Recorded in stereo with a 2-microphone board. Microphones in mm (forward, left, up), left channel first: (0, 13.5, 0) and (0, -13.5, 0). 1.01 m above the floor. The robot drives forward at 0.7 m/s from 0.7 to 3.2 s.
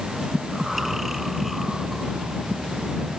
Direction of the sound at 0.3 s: 10° right (ahead or behind).